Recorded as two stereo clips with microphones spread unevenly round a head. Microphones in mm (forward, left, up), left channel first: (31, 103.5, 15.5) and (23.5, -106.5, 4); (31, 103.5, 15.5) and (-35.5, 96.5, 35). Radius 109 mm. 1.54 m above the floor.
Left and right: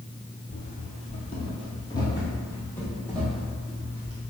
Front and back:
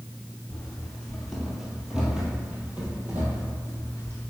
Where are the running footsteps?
95° left, 1.9 m; by 4.2 s 175° right, 2.5 m.